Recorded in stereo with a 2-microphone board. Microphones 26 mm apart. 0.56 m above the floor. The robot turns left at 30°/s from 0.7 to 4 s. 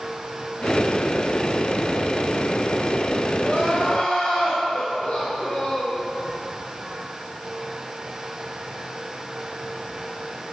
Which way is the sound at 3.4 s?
70° left (ahead or behind).